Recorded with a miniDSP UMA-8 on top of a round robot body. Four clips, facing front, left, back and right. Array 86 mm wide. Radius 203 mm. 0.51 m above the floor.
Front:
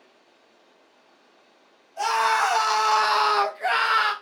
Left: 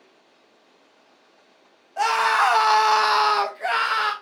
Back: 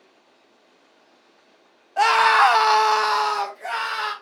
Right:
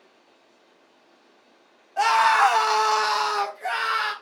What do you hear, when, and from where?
2.0 s a scream: 175° right, 1.1 m; by 4.1 s 35° left, 1.2 m